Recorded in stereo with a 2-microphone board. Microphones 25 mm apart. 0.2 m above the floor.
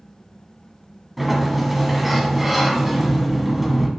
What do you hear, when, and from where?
1.2 s a sliding door: 10° right (ahead or behind), 1.3 m